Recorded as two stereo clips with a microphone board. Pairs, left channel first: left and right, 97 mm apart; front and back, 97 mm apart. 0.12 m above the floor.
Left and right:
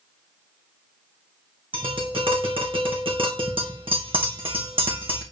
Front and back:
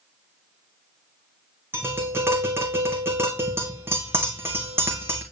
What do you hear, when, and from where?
1.7 s tapping: 115° right, 2 m